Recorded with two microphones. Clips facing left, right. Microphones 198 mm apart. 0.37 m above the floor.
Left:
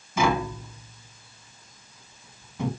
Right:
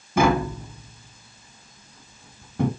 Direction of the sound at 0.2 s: 60° right (ahead or behind).